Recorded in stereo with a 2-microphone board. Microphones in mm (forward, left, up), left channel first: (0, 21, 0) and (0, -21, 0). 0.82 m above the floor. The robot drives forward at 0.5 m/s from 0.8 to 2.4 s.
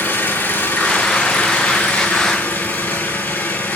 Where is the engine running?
55° left (ahead or behind), 6.5 m; by 3.8 s 50° left (ahead or behind), 7 m.